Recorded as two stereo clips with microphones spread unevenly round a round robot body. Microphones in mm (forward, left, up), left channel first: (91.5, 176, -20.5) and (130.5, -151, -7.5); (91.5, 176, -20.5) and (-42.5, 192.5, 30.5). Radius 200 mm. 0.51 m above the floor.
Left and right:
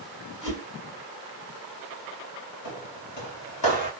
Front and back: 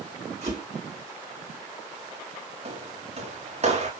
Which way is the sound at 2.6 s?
140° left.